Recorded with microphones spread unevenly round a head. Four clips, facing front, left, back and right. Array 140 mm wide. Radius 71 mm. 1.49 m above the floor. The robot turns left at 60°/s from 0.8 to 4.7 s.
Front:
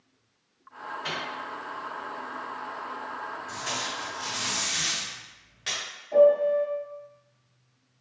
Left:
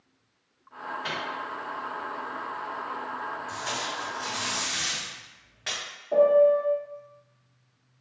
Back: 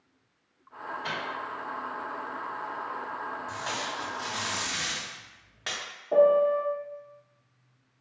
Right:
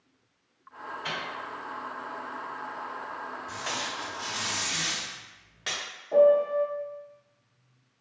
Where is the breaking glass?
I don't hear breaking glass.